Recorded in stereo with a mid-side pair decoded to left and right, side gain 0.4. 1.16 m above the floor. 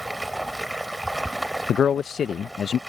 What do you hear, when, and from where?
0.0 s running water: 15° right
1.7 s a man speaking: 55° left